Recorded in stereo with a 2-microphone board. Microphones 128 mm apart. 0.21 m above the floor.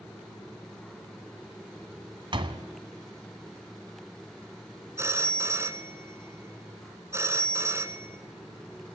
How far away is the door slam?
About 1.4 m.